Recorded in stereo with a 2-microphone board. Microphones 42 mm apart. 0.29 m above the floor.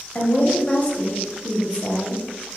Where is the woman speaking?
30° left (ahead or behind), 1.1 m.